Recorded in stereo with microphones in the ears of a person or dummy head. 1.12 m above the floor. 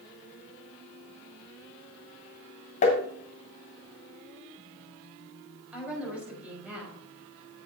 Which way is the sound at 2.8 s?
40° left (ahead or behind).